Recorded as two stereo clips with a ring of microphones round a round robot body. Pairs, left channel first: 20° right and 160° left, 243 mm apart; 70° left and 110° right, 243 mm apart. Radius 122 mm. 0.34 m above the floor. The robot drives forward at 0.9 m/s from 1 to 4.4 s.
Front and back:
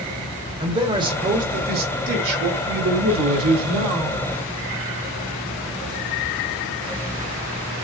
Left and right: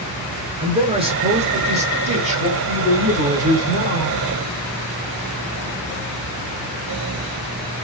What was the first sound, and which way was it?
A man speaking, 150° right.